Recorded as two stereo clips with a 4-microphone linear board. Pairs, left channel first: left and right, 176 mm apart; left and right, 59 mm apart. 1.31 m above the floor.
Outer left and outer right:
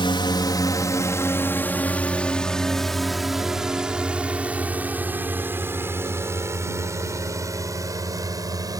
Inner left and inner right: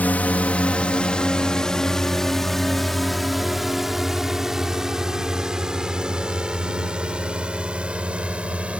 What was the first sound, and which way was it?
A drone, 30° left (ahead or behind).